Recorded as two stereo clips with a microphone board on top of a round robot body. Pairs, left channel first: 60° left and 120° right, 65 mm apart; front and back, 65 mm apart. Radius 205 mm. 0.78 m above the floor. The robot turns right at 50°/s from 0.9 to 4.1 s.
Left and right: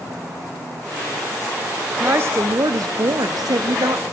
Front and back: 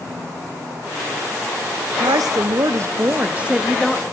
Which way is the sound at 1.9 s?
175° left.